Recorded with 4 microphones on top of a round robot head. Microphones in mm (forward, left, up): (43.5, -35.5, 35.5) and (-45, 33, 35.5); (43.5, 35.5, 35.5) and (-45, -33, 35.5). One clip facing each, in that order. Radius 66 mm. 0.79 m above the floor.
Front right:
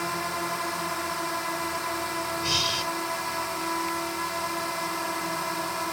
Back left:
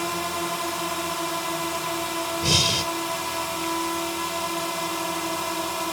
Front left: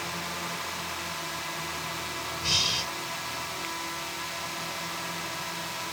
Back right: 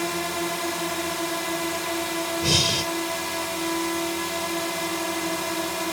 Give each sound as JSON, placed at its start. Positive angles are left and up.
{"t": 0.0, "sound": "a drone", "azimuth_deg": -145}
{"t": 2.4, "sound": "breathing", "azimuth_deg": 180}